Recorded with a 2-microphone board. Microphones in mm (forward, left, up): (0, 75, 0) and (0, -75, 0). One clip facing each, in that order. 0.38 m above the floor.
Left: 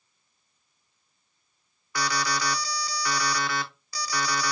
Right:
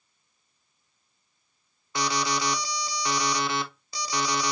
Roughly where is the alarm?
Right.